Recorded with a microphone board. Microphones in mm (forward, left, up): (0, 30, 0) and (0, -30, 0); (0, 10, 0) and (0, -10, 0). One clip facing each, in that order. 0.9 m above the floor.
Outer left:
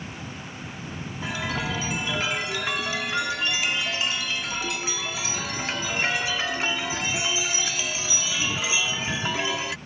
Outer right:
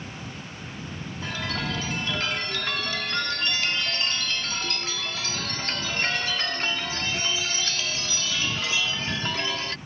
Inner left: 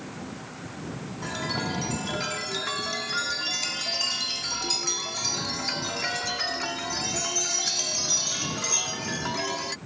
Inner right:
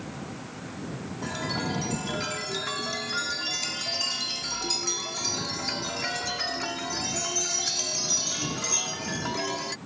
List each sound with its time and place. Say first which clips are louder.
1.2 s a chime: outer left 2 dB, inner left 1 dB; 10° left (ahead or behind)